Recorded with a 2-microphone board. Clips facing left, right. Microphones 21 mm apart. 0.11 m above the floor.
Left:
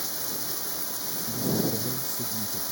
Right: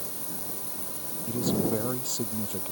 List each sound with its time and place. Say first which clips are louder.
0.0 s running water: left 5 dB; 55° left (ahead or behind)
1.3 s a man speaking: right 1 dB; 60° right (ahead or behind)